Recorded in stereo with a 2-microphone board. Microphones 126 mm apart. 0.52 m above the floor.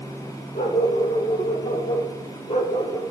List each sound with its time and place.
0.6 s a dog barking: 85° left, 3.5 m; by 3.0 s 45° left (ahead or behind), 3 m